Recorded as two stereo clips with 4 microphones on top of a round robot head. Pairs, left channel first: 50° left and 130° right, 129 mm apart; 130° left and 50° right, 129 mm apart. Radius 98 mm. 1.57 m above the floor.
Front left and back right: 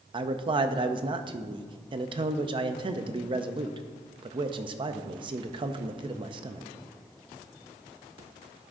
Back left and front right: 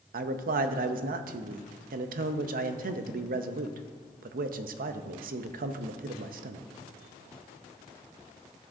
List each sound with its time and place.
0.1 s a man speaking: 75° right, 0.5 m